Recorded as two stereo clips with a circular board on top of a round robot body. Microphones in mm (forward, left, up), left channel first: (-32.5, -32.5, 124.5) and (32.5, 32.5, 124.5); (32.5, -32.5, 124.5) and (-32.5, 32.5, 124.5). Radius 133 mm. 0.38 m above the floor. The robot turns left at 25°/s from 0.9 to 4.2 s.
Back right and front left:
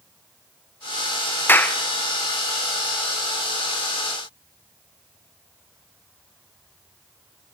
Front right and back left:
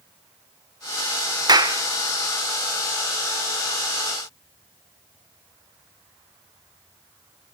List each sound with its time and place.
1.5 s a clap: 160° left, 1.6 m; by 1.8 s 155° left, 1.6 m